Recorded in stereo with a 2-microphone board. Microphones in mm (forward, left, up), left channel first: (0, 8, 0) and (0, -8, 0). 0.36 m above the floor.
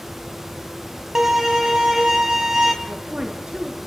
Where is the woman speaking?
60° right (ahead or behind), 6 m.